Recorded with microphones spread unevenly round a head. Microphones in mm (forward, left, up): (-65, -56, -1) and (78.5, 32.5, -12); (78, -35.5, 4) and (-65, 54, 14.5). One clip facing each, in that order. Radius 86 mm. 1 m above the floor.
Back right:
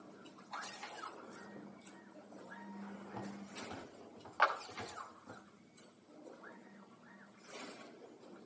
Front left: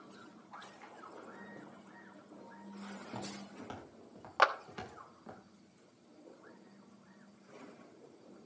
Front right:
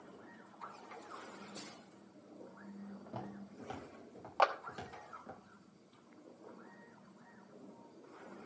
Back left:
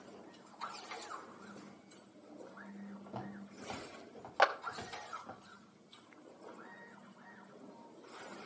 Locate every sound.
3.1 s footsteps: 50° left, 7.5 m; by 5.4 s 35° left, 8.5 m
4.4 s a clap: 70° left, 1.1 m